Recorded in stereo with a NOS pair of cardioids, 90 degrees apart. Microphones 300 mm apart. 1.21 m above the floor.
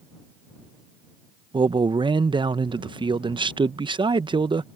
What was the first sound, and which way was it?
A man speaking, 15° right.